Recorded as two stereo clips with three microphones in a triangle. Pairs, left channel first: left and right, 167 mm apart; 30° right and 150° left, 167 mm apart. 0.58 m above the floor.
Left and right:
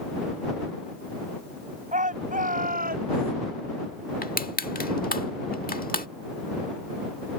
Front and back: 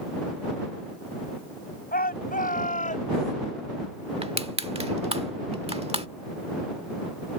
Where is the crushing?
105° left.